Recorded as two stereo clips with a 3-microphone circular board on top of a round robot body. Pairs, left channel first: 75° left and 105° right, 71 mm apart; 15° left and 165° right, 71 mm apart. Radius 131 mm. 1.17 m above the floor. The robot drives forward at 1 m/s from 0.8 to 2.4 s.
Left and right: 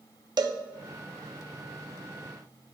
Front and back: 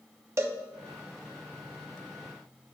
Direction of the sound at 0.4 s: 115° right.